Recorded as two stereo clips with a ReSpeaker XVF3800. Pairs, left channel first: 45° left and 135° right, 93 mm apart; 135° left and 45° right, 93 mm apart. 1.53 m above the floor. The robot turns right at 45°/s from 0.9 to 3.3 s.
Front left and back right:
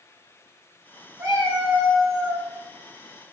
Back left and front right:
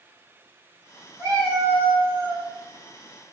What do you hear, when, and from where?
1.2 s a cat meowing: 90° right, 1.2 m; by 2.5 s 30° right, 1.2 m